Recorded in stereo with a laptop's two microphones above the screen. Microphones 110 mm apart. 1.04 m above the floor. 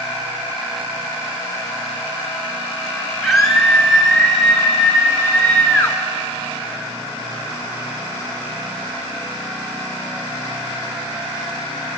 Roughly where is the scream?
Centre.